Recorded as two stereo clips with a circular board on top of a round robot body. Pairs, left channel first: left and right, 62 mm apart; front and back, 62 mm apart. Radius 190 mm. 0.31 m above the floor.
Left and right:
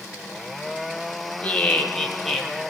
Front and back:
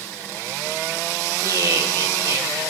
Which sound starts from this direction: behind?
Laughter, at 1.4 s.